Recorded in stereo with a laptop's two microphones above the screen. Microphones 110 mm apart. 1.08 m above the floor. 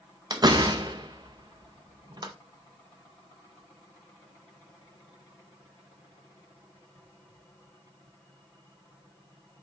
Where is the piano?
I don't hear a piano.